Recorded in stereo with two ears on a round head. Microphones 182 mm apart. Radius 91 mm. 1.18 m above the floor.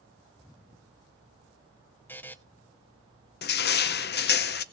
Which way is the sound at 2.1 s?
10° left (ahead or behind).